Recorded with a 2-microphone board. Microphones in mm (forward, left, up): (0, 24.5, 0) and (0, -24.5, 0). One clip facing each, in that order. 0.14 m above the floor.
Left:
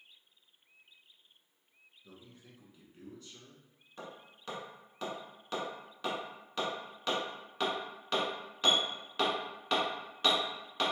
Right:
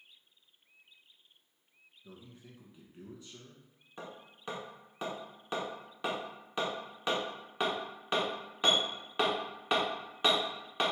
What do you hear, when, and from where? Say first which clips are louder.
2.0 s a man speaking: right 3 dB; 15° right (ahead or behind), 1.1 m
4.0 s hammering: right 1 dB; 20° right (ahead or behind), 1.5 m